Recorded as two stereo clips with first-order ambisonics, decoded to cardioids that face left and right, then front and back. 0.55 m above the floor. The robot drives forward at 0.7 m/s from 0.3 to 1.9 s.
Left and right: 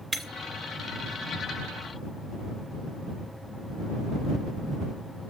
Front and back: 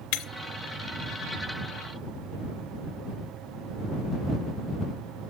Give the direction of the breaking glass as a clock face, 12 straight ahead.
12 o'clock.